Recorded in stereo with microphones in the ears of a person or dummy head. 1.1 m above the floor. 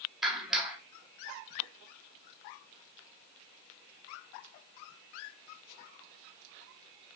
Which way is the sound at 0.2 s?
Centre (ahead or behind).